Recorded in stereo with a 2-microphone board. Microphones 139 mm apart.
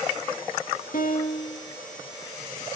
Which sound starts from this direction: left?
A piano, at 0.9 s.